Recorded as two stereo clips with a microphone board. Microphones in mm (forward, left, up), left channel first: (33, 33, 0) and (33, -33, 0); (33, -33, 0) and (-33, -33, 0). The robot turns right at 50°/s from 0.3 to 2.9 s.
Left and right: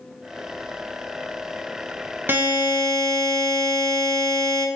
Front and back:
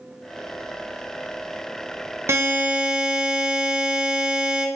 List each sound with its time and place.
2.3 s a buzzer: 140° right, 0.5 m; by 4.7 s 110° right, 0.5 m